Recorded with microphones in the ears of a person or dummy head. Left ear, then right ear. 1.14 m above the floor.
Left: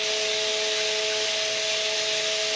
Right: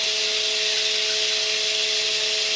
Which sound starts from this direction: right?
Running water, at 0.0 s.